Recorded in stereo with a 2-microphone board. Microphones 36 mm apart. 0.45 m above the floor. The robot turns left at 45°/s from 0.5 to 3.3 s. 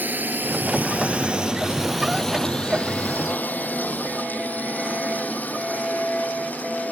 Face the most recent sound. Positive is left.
turn(degrees=45)  # may be behind; listen again after turning